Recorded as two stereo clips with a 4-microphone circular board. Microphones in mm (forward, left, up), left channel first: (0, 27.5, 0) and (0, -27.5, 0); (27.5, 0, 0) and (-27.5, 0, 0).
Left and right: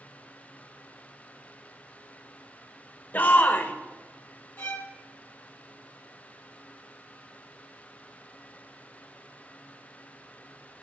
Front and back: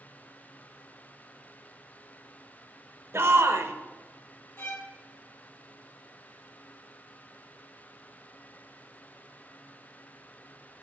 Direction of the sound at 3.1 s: 145° left.